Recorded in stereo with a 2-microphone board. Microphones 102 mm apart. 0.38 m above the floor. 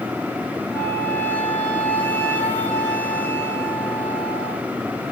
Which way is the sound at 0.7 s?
15° left (ahead or behind).